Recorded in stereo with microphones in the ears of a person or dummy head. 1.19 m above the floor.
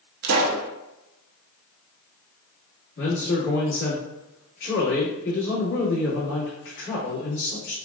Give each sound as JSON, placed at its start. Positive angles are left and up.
{"t": 0.2, "sound": "a pop", "side_deg": -50, "distance_m": 0.6}
{"t": 3.0, "sound": "a man speaking", "side_deg": 65, "distance_m": 1.8}